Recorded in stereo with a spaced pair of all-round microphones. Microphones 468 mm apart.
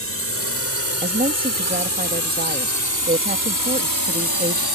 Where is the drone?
30° left (ahead or behind); by 4.8 s 50° left (ahead or behind).